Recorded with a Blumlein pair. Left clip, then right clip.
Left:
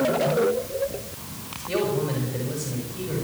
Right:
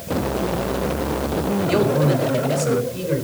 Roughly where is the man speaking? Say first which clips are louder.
Right 5 dB; ahead.